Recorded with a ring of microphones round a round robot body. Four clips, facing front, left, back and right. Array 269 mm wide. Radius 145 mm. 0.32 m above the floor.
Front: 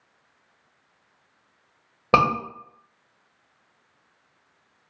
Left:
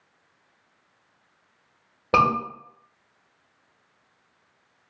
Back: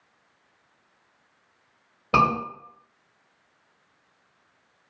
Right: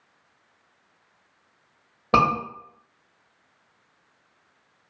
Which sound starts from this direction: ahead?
A scream, at 2.1 s.